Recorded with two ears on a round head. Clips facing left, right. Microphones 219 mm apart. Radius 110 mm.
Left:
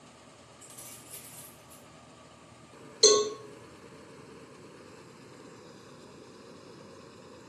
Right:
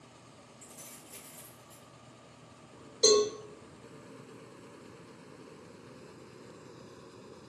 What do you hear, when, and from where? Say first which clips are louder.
0.6 s keys jangling: even; 15° left (ahead or behind), 1.2 m
3.0 s a cowbell: left 1 dB; 35° left (ahead or behind), 1.2 m